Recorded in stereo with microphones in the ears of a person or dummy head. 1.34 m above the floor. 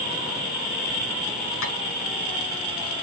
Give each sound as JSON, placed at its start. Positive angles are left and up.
{"t": 1.6, "sound": "tapping", "side_deg": 80, "distance_m": 7.0}